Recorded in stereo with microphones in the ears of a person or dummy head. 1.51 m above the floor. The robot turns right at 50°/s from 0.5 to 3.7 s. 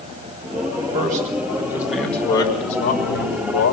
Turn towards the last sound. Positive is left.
turn(degrees=85)